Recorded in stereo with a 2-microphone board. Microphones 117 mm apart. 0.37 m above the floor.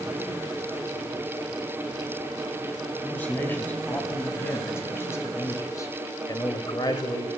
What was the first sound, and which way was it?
A man speaking, 15° left (ahead or behind).